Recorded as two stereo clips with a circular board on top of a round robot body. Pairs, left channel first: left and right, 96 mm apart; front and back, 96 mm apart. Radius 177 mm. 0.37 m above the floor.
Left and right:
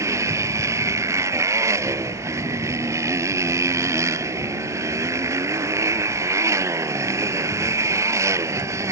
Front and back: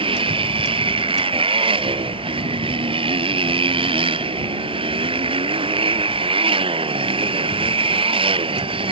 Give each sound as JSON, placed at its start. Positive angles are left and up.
{"t": 0.0, "sound": "a motorcycle", "azimuth_deg": -150}